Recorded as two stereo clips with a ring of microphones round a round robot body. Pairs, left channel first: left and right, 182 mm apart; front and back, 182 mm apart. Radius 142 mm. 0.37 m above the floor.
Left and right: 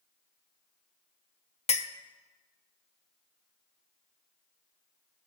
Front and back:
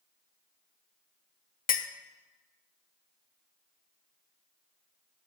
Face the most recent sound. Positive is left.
turn(degrees=40)